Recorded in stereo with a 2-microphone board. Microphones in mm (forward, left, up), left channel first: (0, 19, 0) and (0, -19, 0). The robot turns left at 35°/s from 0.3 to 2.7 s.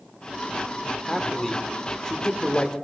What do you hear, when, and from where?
1.1 s a man speaking: centre (ahead or behind), 0.8 m; by 2.7 s 25° left (ahead or behind), 0.8 m